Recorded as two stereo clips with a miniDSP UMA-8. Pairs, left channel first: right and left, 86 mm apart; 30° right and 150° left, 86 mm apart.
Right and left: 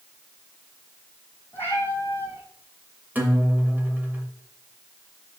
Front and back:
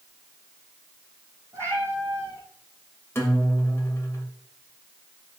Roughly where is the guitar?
Ahead left.